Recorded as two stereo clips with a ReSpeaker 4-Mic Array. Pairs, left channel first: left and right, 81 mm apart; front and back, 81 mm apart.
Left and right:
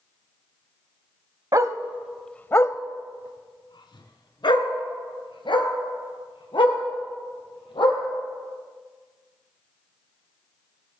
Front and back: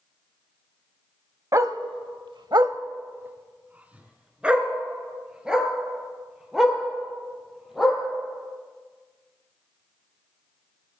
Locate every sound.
1.5 s a dog barking: 135° right, 0.7 m; by 8.0 s 95° left, 4.5 m